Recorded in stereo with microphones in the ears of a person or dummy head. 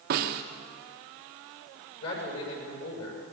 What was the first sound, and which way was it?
A snare drum, 45° right (ahead or behind).